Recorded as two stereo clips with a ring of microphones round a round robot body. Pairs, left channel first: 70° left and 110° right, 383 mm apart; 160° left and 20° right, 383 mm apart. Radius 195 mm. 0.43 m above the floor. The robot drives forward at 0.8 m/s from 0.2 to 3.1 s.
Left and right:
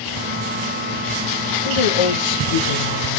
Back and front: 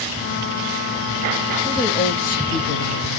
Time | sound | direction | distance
1.6 | a woman speaking | 75° left | 2 m